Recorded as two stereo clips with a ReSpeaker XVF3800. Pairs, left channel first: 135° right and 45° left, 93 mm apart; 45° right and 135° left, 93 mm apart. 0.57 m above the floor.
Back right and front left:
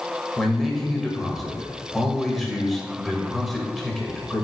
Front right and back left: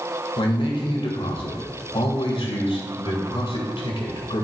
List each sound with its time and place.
0.4 s a man speaking: 45° right, 2 m